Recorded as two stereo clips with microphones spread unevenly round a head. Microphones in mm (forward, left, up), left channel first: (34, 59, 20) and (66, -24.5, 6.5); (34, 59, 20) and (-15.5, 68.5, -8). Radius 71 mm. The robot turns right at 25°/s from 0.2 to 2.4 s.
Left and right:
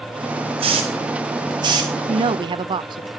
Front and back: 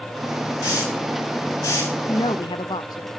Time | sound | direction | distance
0.6 | a hiss | 60° right | 5 m
2.1 | a woman speaking | 50° right | 0.5 m